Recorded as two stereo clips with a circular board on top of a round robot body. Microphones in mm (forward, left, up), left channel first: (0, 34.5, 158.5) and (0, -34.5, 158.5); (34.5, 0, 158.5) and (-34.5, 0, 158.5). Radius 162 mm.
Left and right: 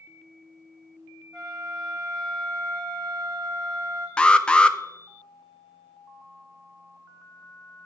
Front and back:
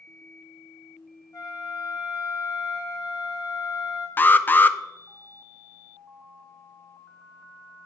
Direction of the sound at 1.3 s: 15° left.